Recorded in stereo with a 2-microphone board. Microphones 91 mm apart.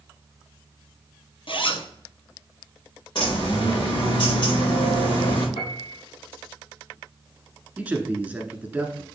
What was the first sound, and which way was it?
A zipper, 65° left (ahead or behind).